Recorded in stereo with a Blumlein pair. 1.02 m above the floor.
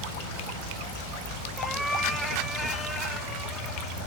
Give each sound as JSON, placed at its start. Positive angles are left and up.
{"t": 1.6, "sound": "a cat meowing", "azimuth_deg": 0, "distance_m": 1.4}